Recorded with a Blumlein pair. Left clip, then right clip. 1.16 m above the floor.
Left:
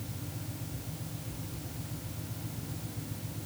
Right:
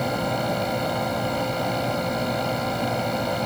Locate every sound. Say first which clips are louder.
0.0 s a fan: right 21 dB; 45° right